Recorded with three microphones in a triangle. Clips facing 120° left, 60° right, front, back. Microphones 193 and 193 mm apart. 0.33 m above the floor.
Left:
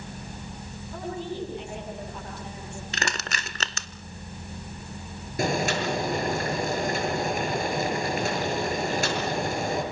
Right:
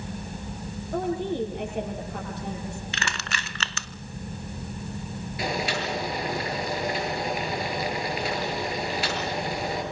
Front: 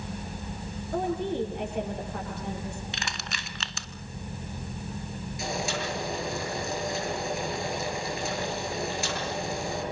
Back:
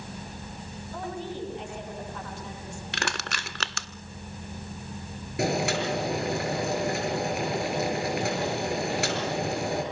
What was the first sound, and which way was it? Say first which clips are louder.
A woman speaking: right 6 dB, front 7 dB; 30° right.